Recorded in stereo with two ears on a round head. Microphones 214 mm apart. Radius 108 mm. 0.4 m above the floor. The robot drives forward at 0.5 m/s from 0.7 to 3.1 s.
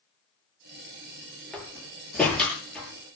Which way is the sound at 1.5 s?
5° left (ahead or behind).